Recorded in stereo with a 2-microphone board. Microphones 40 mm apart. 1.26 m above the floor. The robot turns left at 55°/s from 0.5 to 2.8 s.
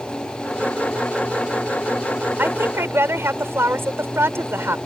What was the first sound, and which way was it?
A woman speaking, 60° right (ahead or behind).